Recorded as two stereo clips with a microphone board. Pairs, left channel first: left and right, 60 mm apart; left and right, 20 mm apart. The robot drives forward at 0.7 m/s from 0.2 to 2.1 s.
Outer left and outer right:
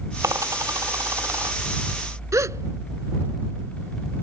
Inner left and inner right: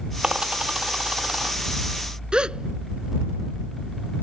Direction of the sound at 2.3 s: 60° right (ahead or behind).